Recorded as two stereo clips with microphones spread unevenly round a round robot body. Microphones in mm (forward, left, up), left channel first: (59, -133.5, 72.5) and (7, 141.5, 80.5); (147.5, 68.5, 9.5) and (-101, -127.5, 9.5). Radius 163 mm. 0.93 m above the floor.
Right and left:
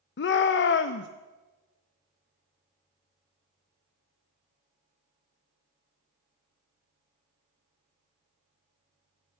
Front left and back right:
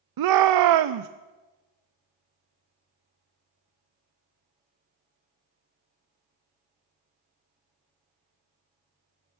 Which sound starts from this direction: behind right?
A shout, at 0.2 s.